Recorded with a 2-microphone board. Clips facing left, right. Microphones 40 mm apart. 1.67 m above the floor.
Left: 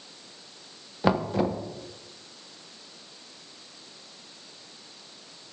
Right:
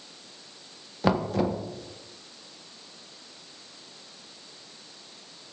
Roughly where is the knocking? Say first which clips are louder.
Even; centre.